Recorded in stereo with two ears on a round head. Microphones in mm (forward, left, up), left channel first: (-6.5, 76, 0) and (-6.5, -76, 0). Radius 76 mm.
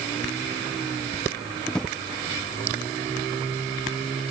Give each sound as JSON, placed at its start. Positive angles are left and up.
{"t": 1.7, "sound": "a drawer", "side_deg": 5}